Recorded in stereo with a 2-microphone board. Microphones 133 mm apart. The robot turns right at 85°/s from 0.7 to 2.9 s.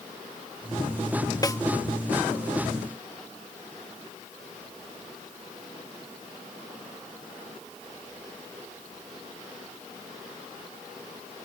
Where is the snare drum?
30° left (ahead or behind); by 1.6 s 20° left (ahead or behind).